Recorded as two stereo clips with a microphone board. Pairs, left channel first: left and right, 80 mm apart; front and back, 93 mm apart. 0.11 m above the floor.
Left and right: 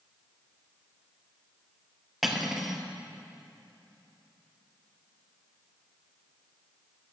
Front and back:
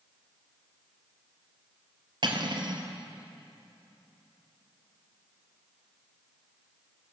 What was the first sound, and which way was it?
Cutlery clinking, 175° right.